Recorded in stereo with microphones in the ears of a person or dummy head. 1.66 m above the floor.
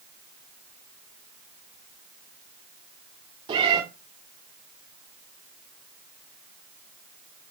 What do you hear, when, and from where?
3.5 s a cat meowing: 25° right (ahead or behind), 2.5 m